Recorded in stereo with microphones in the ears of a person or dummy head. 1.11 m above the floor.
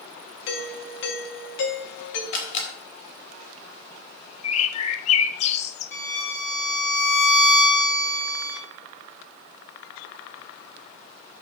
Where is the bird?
45° left (ahead or behind), 1.0 m.